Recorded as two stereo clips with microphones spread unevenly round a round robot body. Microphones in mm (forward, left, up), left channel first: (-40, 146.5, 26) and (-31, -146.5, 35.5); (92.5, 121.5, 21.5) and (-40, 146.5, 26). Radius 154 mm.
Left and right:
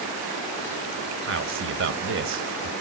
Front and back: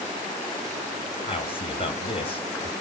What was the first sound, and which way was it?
A man speaking, 50° right.